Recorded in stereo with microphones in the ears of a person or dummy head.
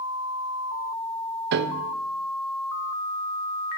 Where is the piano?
60° right (ahead or behind), 0.6 m.